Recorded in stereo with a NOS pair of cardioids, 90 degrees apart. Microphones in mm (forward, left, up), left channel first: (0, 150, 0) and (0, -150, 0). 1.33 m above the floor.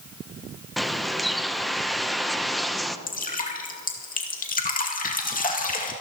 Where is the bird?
Straight ahead, 0.8 m.